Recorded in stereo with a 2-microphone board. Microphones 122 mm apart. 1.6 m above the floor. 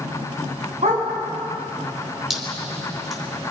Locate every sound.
0.8 s a dog barking: 70° right (ahead or behind), 4.5 m
2.3 s dripping: 5° right (ahead or behind), 4 m